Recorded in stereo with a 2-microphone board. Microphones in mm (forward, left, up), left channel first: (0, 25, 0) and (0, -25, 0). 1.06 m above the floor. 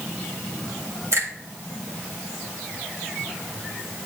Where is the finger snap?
80° right, 2.5 m.